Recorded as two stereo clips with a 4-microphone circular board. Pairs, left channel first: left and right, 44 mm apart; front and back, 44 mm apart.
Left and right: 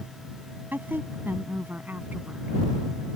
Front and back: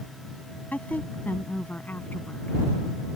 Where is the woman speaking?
50° right; by 2.6 s 45° right.